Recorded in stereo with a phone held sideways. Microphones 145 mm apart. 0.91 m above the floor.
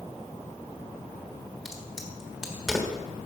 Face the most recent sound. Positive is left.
turn(degrees=-5)  # may be behind; listen again after turning